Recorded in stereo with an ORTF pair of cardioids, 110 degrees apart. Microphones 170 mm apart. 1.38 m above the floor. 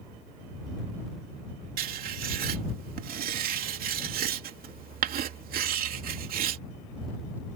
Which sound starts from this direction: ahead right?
Writing, at 1.8 s.